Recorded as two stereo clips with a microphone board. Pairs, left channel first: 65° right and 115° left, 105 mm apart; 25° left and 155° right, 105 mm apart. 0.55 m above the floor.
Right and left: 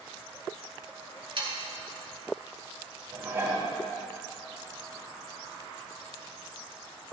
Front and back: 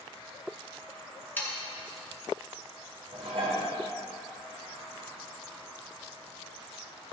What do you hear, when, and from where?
1.4 s sawing: 90° left, 1.7 m
3.1 s dishes clattering: 175° left, 2.5 m